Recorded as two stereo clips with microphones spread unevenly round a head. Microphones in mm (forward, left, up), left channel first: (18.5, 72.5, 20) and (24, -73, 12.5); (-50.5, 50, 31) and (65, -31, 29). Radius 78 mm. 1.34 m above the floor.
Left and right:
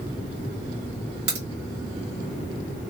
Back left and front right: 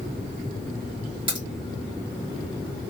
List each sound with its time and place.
1.3 s a crack: 90° right, 1.6 m